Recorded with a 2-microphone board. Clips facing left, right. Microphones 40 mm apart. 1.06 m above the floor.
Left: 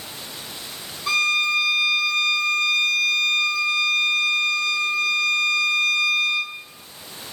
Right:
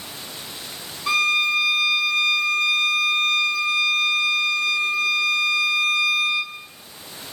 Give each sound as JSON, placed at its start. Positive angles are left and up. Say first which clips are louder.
{"t": 1.1, "sound": "a violin", "louder": "right 1 dB", "side_deg": -10, "distance_m": 1.4}